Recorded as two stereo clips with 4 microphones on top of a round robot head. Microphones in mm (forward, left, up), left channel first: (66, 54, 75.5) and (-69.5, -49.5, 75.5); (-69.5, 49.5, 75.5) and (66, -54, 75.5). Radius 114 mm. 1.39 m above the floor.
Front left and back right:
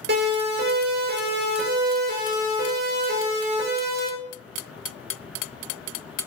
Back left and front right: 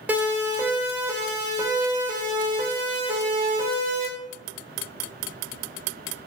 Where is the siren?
120° right, 9.5 m; by 4.1 s 90° right, 10 m.